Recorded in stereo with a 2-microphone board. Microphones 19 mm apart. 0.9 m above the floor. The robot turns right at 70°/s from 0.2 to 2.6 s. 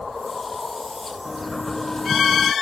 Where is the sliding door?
5° right; by 2.5 s 80° left.